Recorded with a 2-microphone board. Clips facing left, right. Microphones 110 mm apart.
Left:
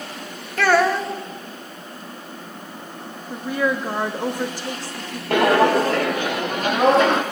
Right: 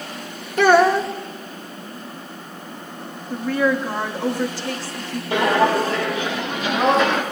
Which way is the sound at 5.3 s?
55° left (ahead or behind).